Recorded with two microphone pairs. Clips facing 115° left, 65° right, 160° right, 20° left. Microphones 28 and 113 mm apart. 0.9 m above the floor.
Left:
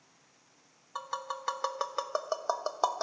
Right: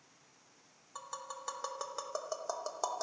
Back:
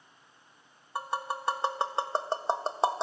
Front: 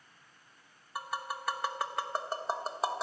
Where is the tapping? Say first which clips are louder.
Left 8 dB, back 4 dB; 150° left, 0.9 m.